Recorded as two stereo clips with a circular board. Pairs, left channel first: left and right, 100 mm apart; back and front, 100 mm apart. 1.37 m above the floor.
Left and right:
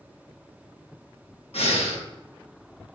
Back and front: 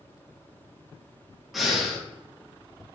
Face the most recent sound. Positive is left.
turn(degrees=90)